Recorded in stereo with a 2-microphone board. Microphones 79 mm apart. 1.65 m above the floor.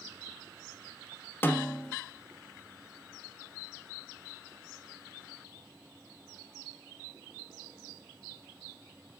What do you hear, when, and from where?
1.4 s a snare drum: 25° left (ahead or behind), 1.1 m